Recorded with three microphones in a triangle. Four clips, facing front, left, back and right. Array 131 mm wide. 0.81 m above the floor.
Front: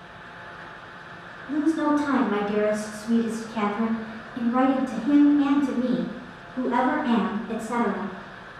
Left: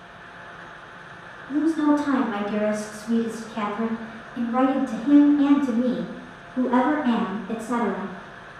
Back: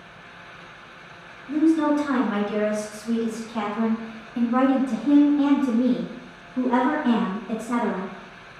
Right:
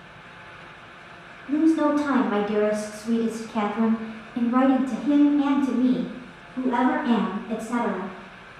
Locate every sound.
1.5 s a woman speaking: 85° right, 2.0 m; by 8.1 s 140° left, 2 m